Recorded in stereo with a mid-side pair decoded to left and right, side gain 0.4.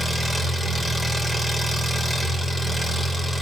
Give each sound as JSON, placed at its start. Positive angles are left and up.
{"t": 0.0, "sound": "an engine running", "azimuth_deg": 0, "distance_m": 2.0}